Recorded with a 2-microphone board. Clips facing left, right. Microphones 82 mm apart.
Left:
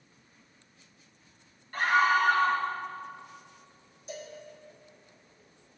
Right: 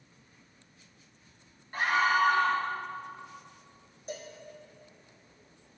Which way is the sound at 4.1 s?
45° right (ahead or behind).